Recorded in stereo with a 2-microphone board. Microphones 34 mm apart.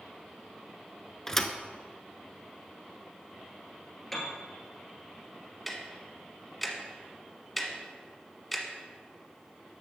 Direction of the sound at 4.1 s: 10° left (ahead or behind).